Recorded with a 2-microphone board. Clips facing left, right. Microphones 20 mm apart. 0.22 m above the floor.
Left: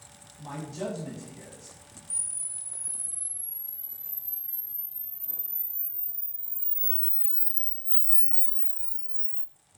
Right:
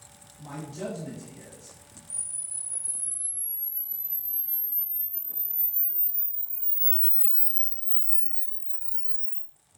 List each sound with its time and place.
0.4 s a man speaking: 25° left (ahead or behind), 1.2 m
2.1 s a camera shutter: 60° right (ahead or behind), 0.6 m